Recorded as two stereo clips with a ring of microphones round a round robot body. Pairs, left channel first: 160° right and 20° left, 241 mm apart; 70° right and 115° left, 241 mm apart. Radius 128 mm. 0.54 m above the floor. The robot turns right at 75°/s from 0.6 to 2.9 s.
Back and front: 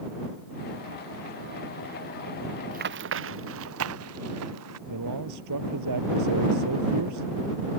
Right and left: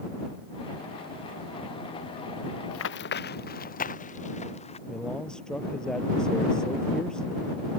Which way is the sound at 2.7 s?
40° right.